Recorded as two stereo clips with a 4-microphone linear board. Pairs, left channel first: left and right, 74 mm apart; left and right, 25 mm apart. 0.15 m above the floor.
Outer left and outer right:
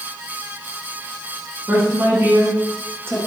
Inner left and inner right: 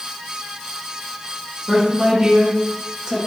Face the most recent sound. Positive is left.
turn(degrees=-35)  # may be behind; listen again after turning